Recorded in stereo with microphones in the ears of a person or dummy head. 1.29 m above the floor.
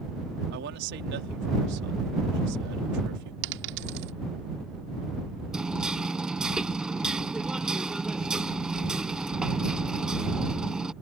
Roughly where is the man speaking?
Right.